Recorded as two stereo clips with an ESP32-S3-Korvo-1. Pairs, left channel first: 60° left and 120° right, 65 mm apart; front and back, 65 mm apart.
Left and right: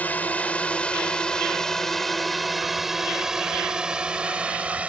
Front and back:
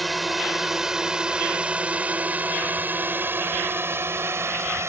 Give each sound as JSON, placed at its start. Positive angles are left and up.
{"t": 0.0, "sound": "a drone", "azimuth_deg": 90}